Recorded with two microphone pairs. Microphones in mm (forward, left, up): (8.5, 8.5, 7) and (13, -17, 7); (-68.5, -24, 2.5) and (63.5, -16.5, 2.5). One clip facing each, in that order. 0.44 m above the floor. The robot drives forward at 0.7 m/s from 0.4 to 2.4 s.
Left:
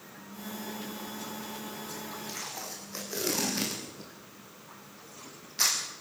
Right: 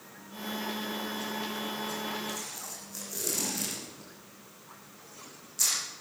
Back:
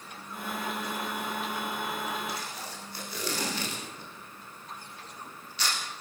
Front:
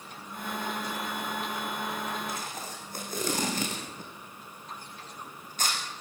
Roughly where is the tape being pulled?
Ahead left.